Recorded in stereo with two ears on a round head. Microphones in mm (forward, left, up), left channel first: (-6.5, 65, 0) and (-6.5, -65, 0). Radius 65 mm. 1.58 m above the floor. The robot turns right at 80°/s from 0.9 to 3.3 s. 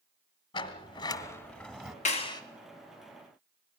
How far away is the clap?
About 1.4 m.